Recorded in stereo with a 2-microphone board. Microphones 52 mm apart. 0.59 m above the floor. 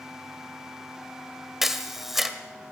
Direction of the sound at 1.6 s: 5° right (ahead or behind).